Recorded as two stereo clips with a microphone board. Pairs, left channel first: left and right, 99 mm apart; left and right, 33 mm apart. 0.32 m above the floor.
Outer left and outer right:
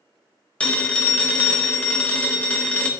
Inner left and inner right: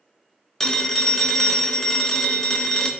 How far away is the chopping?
I don't hear chopping.